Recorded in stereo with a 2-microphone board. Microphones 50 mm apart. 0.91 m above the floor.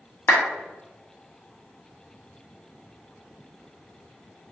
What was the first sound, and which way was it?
A clap, 50° left (ahead or behind).